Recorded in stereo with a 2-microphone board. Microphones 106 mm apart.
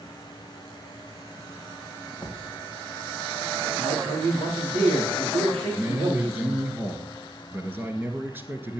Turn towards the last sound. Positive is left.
turn(degrees=-20)  # may be behind; listen again after turning